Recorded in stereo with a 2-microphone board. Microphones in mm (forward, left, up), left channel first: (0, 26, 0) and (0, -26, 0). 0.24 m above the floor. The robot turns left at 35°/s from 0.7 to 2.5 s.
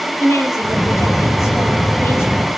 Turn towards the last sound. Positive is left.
turn(degrees=45)